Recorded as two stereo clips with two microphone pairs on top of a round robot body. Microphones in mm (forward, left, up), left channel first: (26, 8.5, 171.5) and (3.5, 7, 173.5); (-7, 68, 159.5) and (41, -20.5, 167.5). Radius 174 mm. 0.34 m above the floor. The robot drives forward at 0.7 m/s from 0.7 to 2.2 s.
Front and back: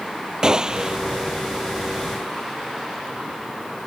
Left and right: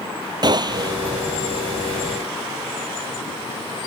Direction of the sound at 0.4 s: 115° right.